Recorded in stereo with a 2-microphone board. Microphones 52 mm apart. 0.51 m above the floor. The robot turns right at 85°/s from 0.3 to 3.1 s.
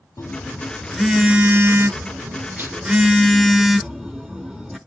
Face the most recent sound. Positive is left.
turn(degrees=0)